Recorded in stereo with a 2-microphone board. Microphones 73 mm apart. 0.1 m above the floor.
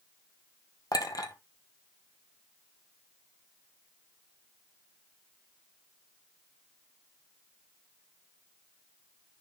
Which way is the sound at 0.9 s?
55° left (ahead or behind).